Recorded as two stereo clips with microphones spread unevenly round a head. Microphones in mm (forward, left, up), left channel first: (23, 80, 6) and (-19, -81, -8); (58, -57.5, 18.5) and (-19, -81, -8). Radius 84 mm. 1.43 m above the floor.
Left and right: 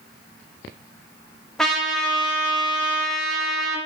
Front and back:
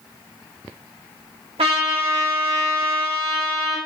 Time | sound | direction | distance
1.6 | a trumpet | 160° left | 0.8 m